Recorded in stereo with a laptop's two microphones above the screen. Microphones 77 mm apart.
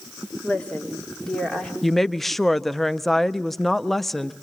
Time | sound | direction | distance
0.4 | a woman speaking | 15° left (ahead or behind) | 2.5 m
1.8 | a woman speaking | centre (ahead or behind) | 0.5 m